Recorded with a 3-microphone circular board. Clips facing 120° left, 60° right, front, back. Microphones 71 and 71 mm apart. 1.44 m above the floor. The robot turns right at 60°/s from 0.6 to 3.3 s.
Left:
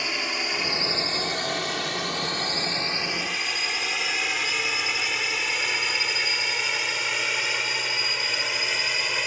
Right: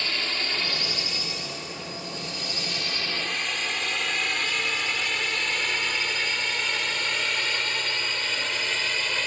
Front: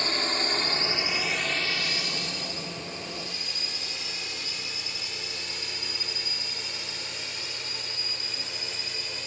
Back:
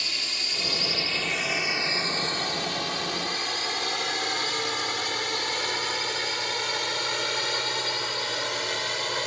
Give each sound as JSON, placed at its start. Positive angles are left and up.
{"t": 0.0, "sound": "a drone", "azimuth_deg": 45}